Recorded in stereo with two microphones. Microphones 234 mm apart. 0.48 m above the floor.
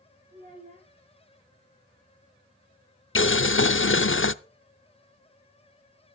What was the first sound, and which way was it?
A child speaking, 35° right (ahead or behind).